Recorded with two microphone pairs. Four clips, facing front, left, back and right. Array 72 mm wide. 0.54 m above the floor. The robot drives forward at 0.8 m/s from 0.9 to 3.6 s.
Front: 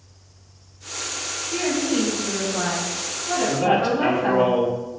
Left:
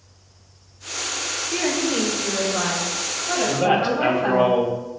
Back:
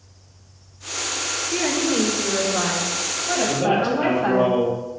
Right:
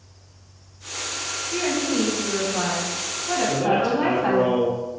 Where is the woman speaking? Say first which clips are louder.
Even, even; 155° left, 1.9 m; by 4.5 s 165° left, 3.5 m.